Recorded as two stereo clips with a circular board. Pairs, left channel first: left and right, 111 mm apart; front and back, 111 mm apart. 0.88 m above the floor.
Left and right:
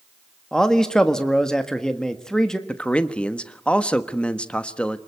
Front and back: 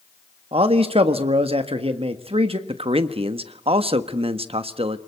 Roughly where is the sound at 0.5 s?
Behind.